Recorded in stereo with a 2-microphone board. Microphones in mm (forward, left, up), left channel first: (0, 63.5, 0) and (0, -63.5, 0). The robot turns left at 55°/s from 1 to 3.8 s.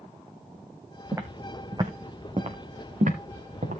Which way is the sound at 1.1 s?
15° right (ahead or behind).